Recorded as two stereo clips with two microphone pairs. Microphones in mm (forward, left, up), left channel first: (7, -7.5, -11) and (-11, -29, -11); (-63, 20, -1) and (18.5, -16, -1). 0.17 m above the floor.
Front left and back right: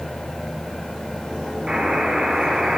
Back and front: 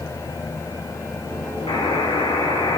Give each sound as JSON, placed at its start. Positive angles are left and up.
{"t": 1.7, "sound": "a buzzer", "azimuth_deg": 175, "distance_m": 5.0}